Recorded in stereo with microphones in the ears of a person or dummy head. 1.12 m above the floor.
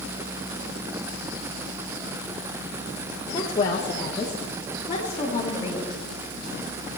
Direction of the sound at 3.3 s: 25° left (ahead or behind).